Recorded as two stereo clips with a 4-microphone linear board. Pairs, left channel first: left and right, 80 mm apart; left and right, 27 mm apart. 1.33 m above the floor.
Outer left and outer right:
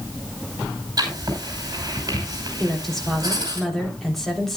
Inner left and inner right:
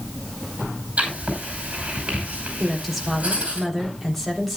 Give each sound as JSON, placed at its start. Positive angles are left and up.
{"t": 1.0, "sound": "writing", "side_deg": -50, "distance_m": 5.5}
{"t": 2.6, "sound": "a woman speaking", "side_deg": 5, "distance_m": 3.5}